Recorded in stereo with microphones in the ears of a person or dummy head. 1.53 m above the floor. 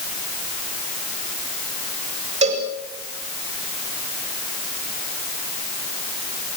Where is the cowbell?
35° right (ahead or behind), 6 m.